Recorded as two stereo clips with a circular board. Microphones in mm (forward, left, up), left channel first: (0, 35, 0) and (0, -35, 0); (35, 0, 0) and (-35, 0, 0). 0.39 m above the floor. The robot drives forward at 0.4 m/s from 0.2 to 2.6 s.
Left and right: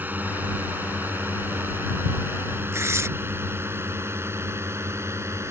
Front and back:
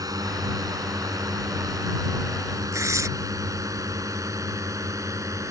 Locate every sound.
0.0 s a drone: 155° right; by 5.5 s 140° right
2.7 s tearing paper: 140° right